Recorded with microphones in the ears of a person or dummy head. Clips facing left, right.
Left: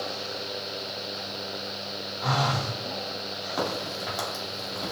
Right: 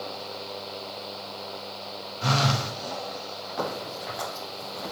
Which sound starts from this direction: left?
A crack, at 3.6 s.